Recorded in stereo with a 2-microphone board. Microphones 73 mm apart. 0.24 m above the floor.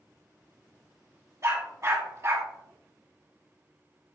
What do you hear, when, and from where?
1.4 s a dog barking: 40° right (ahead or behind), 3 m